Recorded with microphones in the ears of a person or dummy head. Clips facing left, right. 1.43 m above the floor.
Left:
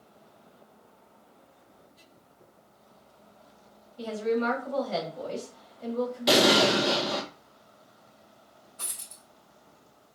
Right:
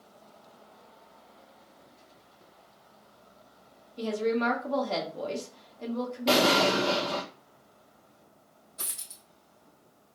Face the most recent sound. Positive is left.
turn(degrees=-50)  # may be behind; listen again after turning